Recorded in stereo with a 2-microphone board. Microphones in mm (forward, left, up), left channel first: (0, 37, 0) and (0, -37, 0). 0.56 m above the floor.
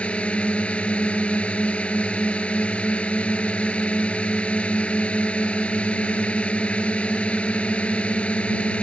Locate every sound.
0.0 s a drone: 15° left (ahead or behind)